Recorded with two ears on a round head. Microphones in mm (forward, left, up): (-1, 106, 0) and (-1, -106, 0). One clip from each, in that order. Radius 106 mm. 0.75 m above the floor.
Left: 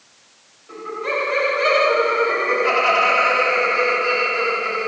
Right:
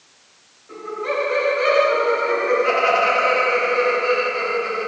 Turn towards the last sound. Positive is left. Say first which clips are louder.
# left 1 dB
turn(degrees=20)  # may be behind; listen again after turning